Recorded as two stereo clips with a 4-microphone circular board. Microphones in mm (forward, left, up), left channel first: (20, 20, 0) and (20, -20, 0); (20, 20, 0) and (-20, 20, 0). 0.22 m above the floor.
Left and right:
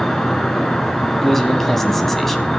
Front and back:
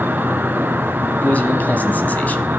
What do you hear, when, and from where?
0.0 s an insect: 170° left, 1.4 m
1.2 s a man speaking: 10° left, 1.3 m